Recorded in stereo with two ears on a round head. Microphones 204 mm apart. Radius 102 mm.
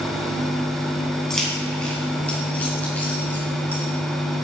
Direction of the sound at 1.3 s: Centre (ahead or behind).